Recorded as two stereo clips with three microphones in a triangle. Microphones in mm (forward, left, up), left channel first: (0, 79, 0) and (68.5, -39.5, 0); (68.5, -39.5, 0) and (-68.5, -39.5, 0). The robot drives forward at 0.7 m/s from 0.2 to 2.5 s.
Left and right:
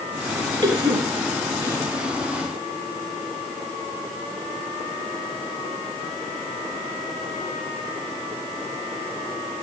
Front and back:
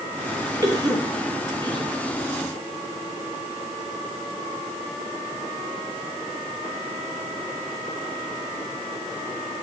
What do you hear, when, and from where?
0.6 s a cough: 115° right, 4.5 m; by 1.9 s 125° right, 5 m